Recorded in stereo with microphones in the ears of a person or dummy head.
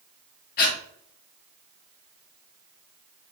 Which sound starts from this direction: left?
Breathing, at 0.6 s.